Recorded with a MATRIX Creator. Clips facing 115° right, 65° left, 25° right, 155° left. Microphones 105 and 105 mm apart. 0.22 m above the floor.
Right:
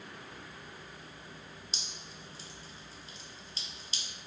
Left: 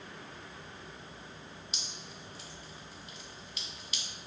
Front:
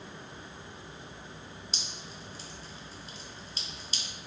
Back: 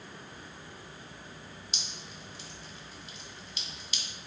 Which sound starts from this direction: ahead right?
Dripping, at 1.7 s.